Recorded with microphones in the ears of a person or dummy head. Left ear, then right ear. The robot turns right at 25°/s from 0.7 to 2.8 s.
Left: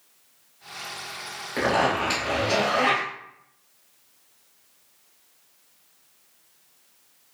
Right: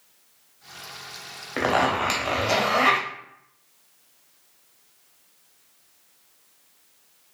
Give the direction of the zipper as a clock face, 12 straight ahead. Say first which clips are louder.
Right 1 dB; 5 o'clock.